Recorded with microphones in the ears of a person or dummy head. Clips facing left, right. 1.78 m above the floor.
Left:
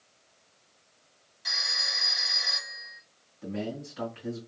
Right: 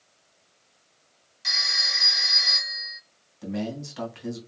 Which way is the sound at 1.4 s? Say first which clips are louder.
Right 2 dB; 35° right (ahead or behind).